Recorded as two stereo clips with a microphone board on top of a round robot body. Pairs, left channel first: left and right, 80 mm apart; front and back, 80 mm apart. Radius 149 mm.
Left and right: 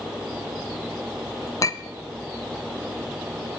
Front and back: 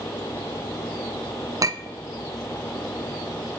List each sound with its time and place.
1.6 s a clink: 135° left, 0.6 m